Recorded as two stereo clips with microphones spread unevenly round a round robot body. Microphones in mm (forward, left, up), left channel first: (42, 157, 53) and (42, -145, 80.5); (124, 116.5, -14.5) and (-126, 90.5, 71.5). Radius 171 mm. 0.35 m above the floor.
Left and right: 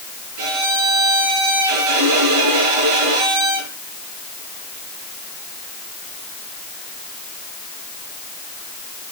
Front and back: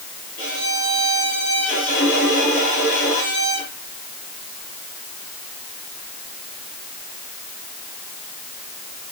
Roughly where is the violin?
Right.